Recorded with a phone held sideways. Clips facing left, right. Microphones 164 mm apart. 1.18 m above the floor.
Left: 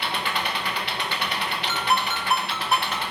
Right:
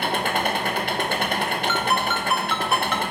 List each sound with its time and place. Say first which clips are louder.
0.0 s an engine running: right 5 dB; 50° right (ahead or behind), 1.0 m
1.7 s a ringtone: right 2 dB; 40° left (ahead or behind), 1.7 m